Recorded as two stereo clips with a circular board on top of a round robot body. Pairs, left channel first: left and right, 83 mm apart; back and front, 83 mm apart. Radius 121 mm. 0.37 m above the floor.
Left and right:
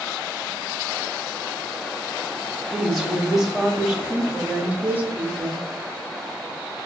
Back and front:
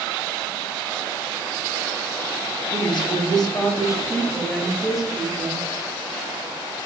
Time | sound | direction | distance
2.7 | a woman speaking | straight behind | 1.6 m